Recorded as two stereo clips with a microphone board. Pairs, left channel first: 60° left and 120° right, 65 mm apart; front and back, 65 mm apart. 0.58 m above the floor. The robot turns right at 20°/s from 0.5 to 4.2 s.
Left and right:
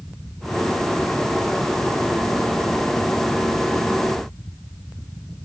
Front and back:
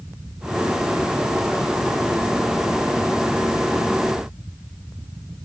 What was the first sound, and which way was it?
Only background noise.